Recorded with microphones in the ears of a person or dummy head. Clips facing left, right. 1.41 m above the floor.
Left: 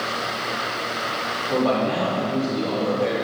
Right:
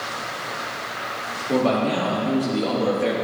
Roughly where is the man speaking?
Right.